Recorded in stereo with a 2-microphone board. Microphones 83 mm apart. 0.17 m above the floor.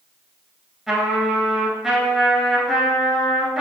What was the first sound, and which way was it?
A trumpet, centre (ahead or behind).